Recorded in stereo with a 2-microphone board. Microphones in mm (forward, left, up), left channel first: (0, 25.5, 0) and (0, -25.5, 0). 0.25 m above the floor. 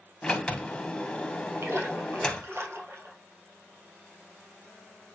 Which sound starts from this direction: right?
A splash, at 1.6 s.